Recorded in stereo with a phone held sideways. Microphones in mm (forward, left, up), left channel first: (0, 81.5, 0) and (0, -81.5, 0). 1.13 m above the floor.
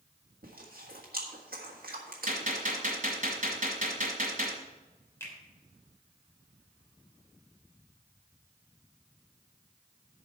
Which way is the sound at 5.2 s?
15° left (ahead or behind).